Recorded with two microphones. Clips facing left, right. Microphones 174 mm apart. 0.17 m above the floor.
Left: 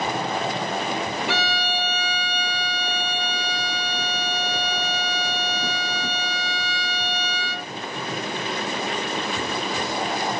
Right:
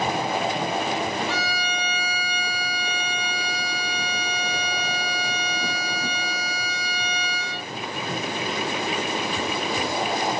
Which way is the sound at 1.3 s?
80° left.